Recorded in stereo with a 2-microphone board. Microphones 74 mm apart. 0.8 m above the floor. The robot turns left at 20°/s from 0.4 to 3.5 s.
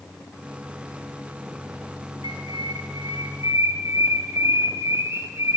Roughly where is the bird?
Right.